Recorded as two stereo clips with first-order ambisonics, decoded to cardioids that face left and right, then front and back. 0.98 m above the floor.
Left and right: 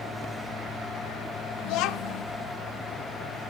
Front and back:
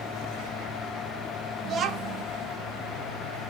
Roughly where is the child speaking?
Behind left.